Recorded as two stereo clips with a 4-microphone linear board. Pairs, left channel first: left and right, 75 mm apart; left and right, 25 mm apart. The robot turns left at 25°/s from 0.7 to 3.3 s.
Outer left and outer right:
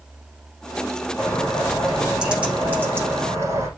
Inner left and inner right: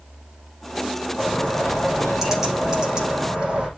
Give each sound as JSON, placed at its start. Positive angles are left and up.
{"t": 1.2, "sound": "a bird", "azimuth_deg": 15, "distance_m": 7.5}